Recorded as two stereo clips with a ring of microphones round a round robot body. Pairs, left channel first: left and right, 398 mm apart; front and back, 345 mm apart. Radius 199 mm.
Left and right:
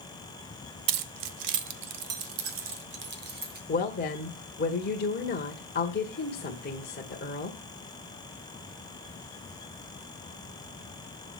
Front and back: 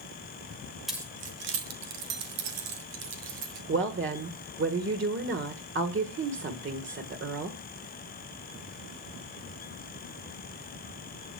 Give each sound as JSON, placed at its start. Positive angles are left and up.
{"t": 0.9, "sound": "keys jangling", "azimuth_deg": -90, "distance_m": 0.9}
{"t": 3.7, "sound": "a woman speaking", "azimuth_deg": 145, "distance_m": 1.5}